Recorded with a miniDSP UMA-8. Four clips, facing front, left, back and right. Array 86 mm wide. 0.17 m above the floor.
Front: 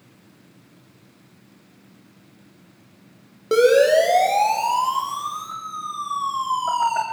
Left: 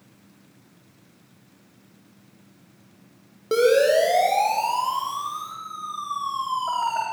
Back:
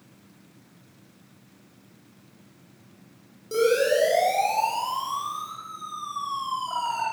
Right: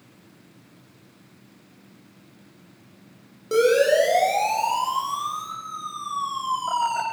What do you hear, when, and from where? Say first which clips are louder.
3.5 s a siren: even, front 7 dB; 20° left, 7.5 m; by 7.0 s 10° left, 10.5 m